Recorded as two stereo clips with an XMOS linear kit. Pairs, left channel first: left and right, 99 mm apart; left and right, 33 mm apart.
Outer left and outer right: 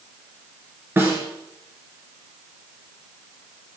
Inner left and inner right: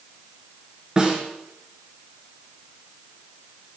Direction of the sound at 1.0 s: 25° right (ahead or behind).